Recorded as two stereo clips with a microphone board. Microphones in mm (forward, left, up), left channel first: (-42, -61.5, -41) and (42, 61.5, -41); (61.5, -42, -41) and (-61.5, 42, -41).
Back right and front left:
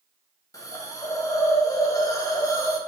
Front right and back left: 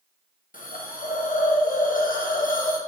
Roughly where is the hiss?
Ahead right.